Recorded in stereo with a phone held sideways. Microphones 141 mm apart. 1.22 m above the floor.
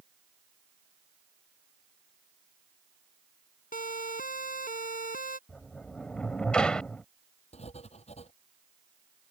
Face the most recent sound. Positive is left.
turn(degrees=50)  # may be behind; listen again after turning